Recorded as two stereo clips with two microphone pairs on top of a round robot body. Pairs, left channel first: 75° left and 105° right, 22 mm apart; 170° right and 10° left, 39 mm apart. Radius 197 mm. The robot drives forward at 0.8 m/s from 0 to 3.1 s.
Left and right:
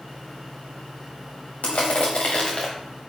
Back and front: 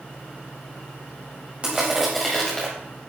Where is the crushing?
70° left, 0.9 m; by 2.7 s 130° left, 1.0 m.